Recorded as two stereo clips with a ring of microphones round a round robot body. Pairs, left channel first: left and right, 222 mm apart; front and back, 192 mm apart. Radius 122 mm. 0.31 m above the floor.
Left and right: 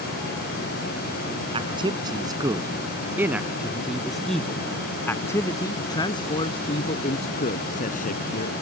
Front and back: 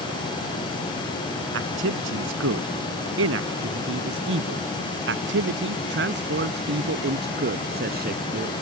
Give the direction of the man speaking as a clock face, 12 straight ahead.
5 o'clock.